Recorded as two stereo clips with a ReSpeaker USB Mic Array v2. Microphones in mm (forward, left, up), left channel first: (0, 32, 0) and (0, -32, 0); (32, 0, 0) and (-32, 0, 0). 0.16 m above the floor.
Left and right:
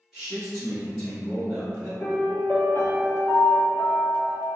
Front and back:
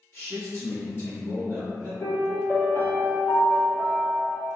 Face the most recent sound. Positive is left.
turn(degrees=40)